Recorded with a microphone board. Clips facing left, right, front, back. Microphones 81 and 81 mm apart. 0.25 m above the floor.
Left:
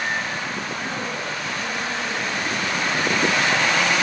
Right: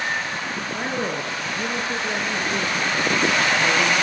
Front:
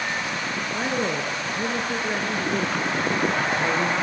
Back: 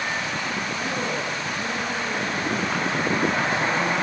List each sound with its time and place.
0.7 s a woman speaking: 40° right, 3.5 m